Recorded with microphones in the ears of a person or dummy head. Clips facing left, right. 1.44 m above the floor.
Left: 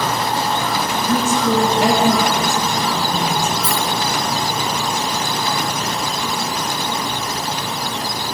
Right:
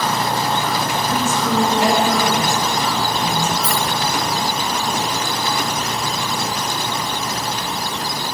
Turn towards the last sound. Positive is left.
turn(degrees=30)  # may be behind; listen again after turning